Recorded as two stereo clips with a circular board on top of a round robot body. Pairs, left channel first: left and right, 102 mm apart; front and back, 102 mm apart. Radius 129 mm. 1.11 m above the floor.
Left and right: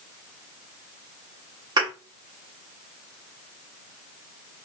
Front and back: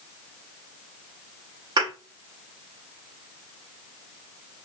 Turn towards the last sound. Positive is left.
turn(degrees=-135)